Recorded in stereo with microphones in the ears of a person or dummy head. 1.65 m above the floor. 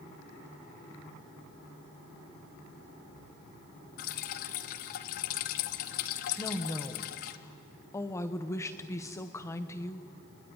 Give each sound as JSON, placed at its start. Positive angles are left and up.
{"t": 4.0, "sound": "dripping", "side_deg": 55, "distance_m": 1.0}
{"t": 6.4, "sound": "a woman speaking", "side_deg": 15, "distance_m": 1.1}